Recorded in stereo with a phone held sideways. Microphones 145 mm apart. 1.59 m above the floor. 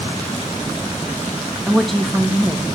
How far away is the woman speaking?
About 2.0 m.